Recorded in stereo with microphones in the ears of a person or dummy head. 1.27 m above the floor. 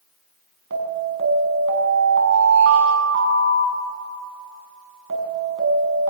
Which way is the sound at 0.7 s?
65° right (ahead or behind).